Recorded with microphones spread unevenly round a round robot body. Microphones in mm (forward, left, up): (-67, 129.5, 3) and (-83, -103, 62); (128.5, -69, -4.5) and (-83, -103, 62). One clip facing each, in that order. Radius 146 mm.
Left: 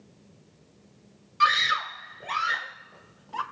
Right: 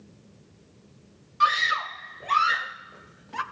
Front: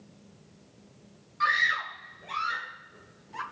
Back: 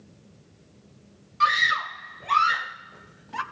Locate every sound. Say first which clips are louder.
1.4 s a scream: even, back 5 dB; 125° left, 2.5 m; by 3.4 s 160° right, 3 m